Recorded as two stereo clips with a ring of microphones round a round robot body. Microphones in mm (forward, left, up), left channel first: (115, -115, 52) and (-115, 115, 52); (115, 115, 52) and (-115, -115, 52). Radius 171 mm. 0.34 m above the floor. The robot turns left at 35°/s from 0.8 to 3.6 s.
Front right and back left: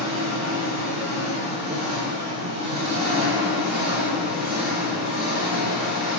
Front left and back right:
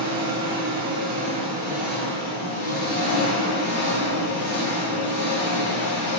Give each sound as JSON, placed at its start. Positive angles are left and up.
{"t": 0.0, "sound": "an engine running", "azimuth_deg": 175, "distance_m": 1.6}